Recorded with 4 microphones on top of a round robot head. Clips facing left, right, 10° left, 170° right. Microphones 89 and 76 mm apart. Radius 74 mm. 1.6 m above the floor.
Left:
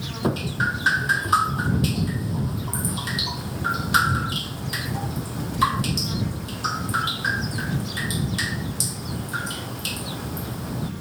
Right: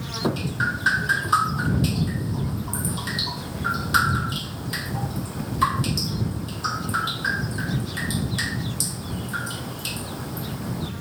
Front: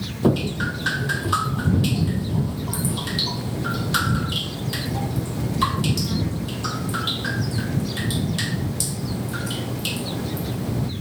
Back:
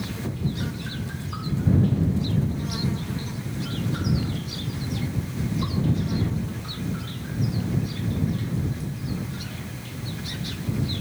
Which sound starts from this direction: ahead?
Dripping, at 0.2 s.